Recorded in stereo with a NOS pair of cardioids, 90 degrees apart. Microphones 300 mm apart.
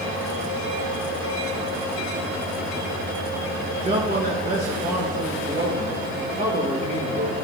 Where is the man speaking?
30° right, 1.7 m.